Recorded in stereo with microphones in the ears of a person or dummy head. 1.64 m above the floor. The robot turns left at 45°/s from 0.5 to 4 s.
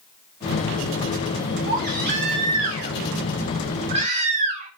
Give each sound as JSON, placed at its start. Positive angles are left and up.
{"t": 1.7, "sound": "a baby crying", "azimuth_deg": -40, "distance_m": 2.0}